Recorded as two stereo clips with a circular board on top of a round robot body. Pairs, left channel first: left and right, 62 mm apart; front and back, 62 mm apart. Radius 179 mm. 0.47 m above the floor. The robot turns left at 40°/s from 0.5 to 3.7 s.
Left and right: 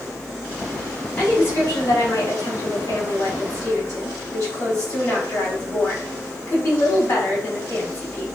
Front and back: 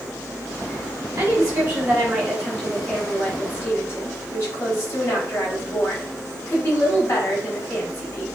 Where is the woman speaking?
155° left, 5 m; by 8.2 s 55° left, 5 m.